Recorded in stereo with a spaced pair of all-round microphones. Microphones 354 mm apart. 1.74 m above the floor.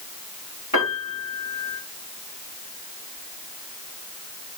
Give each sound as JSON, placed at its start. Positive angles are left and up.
{"t": 0.7, "sound": "a piano", "side_deg": 60, "distance_m": 5.0}